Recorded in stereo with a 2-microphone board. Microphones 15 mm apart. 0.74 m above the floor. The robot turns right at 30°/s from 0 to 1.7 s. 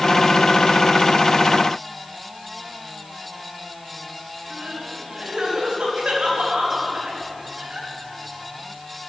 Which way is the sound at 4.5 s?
75° right (ahead or behind).